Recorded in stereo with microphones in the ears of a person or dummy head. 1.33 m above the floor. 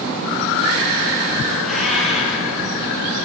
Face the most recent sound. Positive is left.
turn(degrees=0)  # may be behind; listen again after turning